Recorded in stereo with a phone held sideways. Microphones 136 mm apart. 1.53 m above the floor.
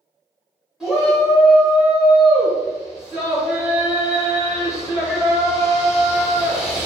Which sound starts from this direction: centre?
A shout, at 0.8 s.